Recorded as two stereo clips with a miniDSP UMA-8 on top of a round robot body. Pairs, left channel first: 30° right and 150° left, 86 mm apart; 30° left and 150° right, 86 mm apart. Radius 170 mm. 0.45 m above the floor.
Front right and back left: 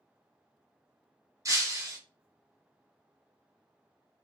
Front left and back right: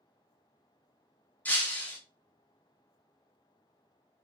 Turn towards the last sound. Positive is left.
turn(degrees=100)